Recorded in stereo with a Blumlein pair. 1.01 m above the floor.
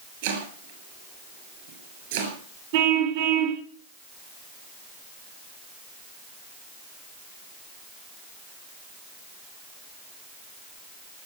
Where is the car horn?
50° right, 5 m.